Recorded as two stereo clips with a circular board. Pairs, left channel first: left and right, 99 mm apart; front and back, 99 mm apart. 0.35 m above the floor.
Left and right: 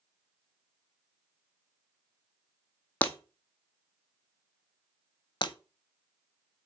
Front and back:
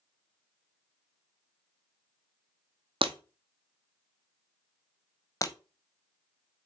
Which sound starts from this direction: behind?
Breaking glass, at 3.0 s.